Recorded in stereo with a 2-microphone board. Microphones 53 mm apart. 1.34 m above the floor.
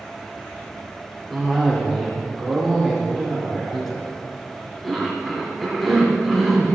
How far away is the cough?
About 3 m.